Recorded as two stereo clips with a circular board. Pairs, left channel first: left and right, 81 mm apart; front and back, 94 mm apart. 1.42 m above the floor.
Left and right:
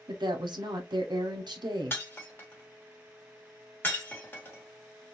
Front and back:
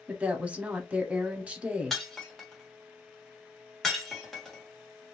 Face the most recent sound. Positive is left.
turn(degrees=85)